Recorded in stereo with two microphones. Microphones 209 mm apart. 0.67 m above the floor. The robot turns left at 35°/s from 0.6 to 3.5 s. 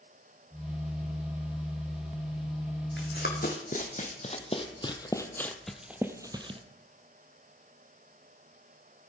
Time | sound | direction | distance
3.0 | running footsteps | 60° left (ahead or behind) | 1.9 m